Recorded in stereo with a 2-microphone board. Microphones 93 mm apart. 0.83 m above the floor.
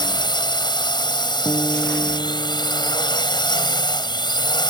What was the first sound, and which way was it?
A drone, 55° left (ahead or behind).